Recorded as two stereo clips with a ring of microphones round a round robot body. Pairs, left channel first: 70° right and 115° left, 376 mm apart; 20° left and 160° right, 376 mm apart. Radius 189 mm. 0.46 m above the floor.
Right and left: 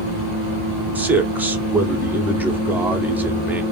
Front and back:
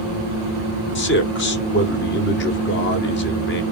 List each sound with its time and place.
0.9 s a man speaking: 30° left, 0.8 m